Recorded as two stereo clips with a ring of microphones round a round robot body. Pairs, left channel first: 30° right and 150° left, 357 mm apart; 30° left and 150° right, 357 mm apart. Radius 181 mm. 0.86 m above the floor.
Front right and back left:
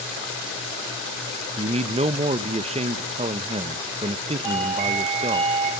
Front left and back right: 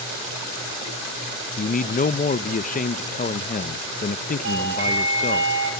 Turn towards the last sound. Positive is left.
turn(degrees=150)